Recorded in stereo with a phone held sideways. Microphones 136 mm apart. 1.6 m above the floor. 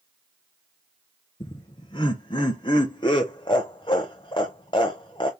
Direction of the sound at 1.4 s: 35° left (ahead or behind).